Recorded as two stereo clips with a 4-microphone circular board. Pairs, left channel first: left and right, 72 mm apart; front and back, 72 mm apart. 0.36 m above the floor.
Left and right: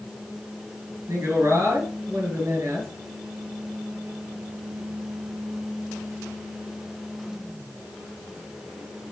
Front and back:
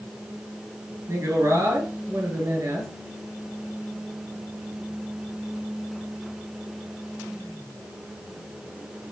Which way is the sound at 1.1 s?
140° right.